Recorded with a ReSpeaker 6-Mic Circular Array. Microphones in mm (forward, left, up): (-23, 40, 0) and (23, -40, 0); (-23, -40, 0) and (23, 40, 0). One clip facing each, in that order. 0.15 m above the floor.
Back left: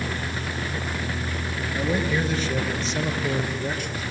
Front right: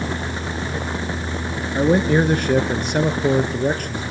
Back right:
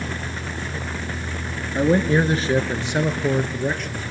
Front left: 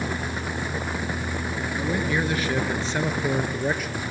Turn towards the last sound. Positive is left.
turn(degrees=-25)